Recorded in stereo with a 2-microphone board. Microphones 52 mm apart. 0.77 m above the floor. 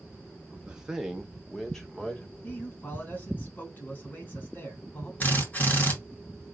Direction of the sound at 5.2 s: 35° left (ahead or behind).